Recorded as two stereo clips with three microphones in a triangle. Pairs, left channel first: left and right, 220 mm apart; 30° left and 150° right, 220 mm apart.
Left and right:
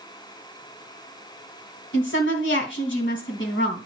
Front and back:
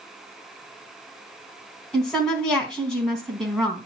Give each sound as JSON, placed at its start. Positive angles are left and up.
{"t": 1.9, "sound": "a woman speaking", "azimuth_deg": 115, "distance_m": 3.0}